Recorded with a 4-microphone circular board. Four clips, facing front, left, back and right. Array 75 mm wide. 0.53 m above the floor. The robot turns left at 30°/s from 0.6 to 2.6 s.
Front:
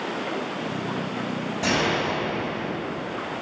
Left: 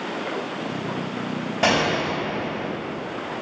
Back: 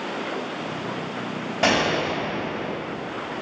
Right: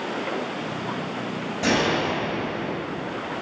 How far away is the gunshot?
About 3 m.